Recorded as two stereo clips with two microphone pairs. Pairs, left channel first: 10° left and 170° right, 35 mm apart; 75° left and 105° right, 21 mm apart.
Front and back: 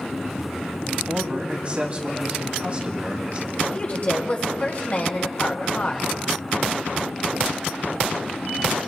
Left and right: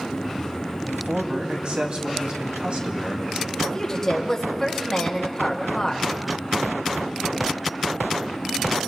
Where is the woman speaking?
10° left, 1.7 m.